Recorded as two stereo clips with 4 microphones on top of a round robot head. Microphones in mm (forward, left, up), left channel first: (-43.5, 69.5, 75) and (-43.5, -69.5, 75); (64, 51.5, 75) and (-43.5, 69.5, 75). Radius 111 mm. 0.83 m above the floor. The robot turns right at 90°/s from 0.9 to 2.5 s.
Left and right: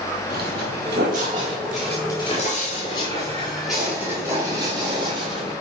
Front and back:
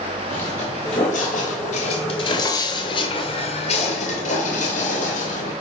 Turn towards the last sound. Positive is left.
turn(degrees=-30)